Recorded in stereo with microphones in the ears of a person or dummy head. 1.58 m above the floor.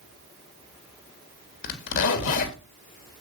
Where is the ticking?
I don't hear ticking.